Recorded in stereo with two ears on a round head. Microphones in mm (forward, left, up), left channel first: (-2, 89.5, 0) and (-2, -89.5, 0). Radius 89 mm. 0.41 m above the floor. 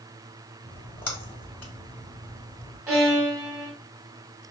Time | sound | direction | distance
0.7 | a splash | 10° left (ahead or behind) | 1.4 m
2.9 | a violin | 15° right (ahead or behind) | 2 m